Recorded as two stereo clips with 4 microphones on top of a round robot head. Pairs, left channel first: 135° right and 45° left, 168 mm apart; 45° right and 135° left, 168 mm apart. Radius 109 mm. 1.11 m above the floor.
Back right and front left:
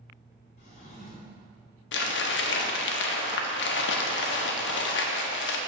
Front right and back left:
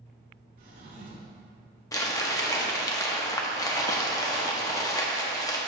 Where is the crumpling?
120° right, 0.7 m.